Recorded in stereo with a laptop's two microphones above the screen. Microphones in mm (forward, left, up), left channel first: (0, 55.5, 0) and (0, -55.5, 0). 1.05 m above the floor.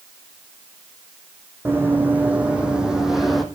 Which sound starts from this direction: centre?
Running footsteps, at 1.6 s.